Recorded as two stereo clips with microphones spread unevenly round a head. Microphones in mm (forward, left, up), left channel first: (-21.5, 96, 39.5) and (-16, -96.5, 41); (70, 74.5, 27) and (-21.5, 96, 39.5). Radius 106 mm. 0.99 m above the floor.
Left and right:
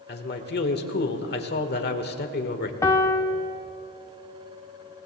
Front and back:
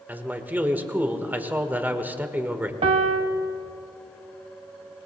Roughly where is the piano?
Behind.